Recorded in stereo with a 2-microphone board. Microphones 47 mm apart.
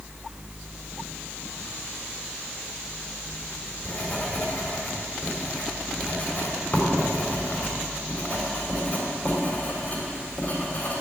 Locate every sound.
3.3 s writing: 35° left (ahead or behind), 3.5 m